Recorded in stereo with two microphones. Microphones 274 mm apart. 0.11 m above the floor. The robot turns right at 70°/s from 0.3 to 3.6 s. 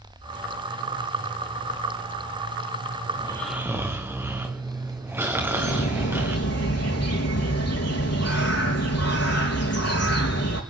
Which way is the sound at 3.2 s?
160° left.